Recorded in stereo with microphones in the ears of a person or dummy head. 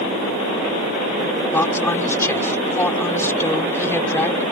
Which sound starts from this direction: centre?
A woman speaking, at 1.5 s.